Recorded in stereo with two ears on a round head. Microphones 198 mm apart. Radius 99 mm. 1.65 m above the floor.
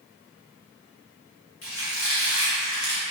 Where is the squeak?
70° left (ahead or behind), 1.7 m.